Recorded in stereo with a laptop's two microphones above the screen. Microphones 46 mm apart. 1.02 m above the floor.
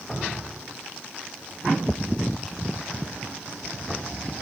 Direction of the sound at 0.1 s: 5° left (ahead or behind).